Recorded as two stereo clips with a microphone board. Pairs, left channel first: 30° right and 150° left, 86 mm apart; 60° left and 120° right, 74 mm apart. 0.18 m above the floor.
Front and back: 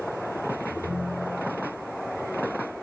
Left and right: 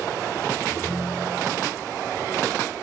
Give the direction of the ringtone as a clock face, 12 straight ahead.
6 o'clock.